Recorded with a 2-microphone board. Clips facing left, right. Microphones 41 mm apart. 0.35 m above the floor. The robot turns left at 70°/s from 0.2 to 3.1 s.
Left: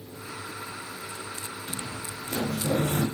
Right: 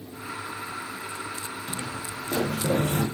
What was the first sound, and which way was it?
Footsteps, 55° right (ahead or behind).